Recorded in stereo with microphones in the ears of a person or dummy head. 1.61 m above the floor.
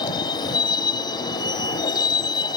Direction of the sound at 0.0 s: 25° left (ahead or behind).